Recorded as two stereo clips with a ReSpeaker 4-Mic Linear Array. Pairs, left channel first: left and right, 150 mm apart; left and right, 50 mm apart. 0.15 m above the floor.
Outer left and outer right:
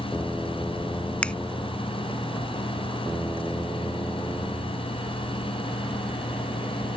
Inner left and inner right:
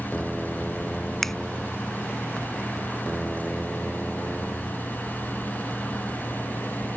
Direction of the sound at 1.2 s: 5° left (ahead or behind).